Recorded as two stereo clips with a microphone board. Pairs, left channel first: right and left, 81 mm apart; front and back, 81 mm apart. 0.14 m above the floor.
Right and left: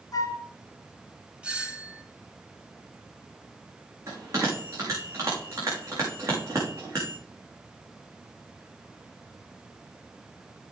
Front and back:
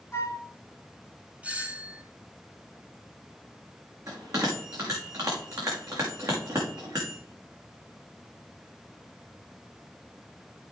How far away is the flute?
About 1.7 m.